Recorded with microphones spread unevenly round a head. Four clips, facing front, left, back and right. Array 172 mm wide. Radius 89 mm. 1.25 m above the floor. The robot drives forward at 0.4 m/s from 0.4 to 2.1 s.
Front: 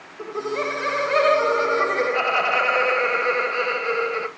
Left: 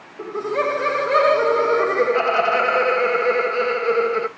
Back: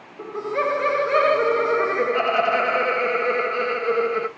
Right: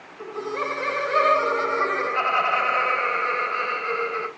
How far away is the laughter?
About 1.1 m.